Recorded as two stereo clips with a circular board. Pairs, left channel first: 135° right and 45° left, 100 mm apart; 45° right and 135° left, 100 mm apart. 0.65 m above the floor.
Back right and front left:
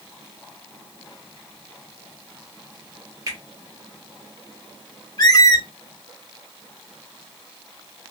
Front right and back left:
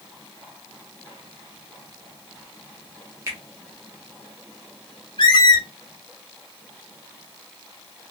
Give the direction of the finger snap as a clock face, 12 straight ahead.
9 o'clock.